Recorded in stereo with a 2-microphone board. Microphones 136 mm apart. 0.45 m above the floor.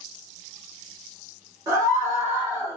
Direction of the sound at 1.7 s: 25° right (ahead or behind).